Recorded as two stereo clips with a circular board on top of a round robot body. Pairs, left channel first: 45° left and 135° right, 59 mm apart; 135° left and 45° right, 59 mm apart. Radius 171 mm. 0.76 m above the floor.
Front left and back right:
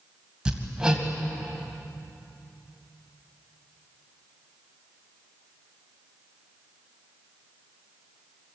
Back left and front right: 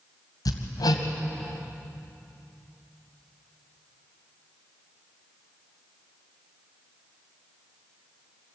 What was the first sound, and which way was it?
Hammering, 145° left.